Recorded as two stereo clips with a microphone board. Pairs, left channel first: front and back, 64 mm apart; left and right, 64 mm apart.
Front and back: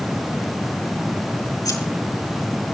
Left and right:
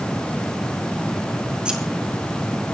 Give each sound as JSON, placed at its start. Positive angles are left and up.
{"t": 1.6, "sound": "scissors", "azimuth_deg": -15, "distance_m": 3.5}